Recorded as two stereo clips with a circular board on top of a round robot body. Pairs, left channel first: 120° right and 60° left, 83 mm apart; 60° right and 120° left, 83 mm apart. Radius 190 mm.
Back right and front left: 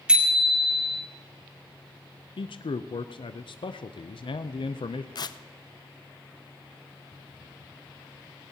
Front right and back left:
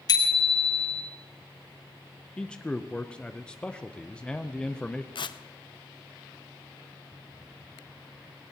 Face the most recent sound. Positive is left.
turn(degrees=-85)